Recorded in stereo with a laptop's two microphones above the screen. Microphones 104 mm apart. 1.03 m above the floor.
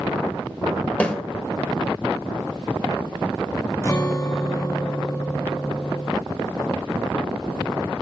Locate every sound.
1.0 s a snare drum: 10° left (ahead or behind), 1.6 m
3.8 s a guitar: 30° left (ahead or behind), 1.4 m